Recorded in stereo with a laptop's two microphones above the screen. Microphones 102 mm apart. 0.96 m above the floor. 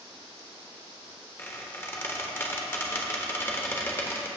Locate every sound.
1.4 s a squeak: 25° left (ahead or behind), 1.1 m